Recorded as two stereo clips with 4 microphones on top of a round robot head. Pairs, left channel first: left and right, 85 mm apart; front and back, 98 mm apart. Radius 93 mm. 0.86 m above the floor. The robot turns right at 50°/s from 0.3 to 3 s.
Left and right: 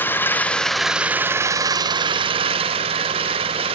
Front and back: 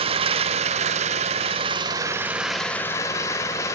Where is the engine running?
155° left, 1.6 m; by 3.8 s 70° right, 1.6 m.